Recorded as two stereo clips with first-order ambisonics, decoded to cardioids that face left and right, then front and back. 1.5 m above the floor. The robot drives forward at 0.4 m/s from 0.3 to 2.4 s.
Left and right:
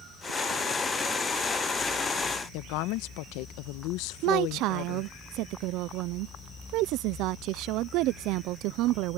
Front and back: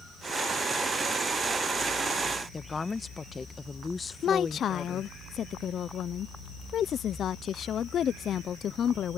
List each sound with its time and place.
2.5 s a woman speaking: 75° left
4.2 s a woman speaking: 60° right